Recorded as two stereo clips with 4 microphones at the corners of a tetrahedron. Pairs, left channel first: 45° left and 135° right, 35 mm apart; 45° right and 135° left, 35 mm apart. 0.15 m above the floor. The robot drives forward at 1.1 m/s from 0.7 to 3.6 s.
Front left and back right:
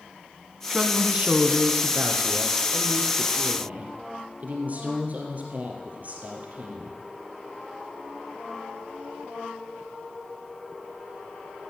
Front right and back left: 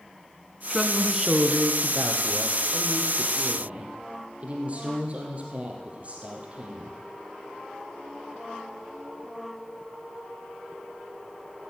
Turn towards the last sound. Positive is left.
turn(degrees=-175)